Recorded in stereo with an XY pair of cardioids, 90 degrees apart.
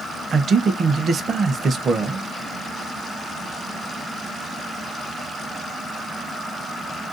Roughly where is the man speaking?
Ahead right.